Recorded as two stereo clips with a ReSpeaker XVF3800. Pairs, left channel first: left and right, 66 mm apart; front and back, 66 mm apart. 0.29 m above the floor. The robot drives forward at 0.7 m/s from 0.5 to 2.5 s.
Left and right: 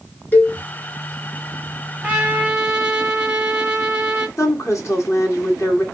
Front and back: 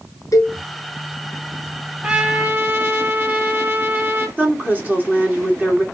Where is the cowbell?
30° left, 1.5 m.